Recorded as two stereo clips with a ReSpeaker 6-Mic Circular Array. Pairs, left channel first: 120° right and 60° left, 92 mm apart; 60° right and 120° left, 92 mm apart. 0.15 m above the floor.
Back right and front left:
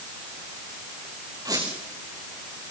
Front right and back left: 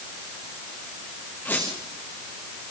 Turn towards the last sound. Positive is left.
turn(degrees=10)